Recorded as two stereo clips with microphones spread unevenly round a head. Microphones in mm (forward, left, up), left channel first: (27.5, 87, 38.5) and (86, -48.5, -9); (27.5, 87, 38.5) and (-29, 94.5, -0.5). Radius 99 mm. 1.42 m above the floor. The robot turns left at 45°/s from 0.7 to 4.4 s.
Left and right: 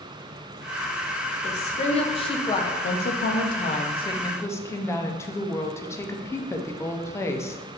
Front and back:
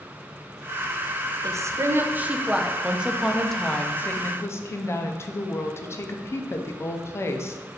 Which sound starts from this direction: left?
A woman speaking, at 2.8 s.